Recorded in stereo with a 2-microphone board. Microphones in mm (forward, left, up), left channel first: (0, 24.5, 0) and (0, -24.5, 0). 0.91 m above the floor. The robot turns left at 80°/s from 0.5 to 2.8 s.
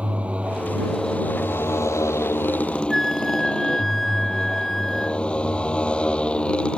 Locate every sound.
0.0 s a motorcycle: 155° right; by 6.8 s 20° left
2.9 s a flute: 5° left (ahead or behind)